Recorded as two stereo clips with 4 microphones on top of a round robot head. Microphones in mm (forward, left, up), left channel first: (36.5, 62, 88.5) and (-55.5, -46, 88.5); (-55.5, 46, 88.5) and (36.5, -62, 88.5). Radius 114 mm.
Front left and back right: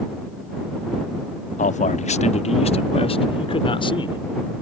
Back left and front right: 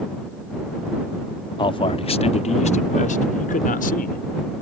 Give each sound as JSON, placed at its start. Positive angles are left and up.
{"t": 1.6, "sound": "a man speaking", "azimuth_deg": 75}